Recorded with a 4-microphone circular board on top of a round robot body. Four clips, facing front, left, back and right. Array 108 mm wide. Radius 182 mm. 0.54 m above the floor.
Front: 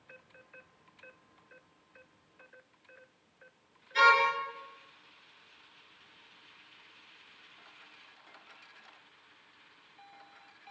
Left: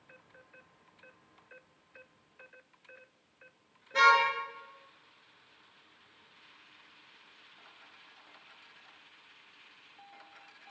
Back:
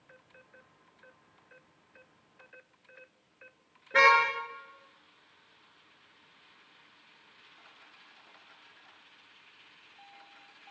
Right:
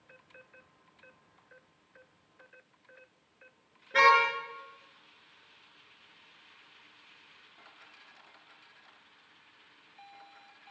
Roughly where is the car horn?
Behind.